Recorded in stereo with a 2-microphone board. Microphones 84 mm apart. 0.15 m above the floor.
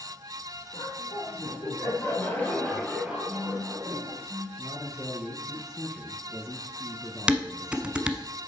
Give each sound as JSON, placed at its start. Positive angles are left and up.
{"t": 0.7, "sound": "laughter", "side_deg": 60, "distance_m": 4.0}
{"t": 3.3, "sound": "a phone buzzing", "side_deg": -60, "distance_m": 2.0}
{"t": 4.6, "sound": "a man speaking", "side_deg": -5, "distance_m": 2.0}
{"t": 7.3, "sound": "dishes clattering", "side_deg": -15, "distance_m": 0.8}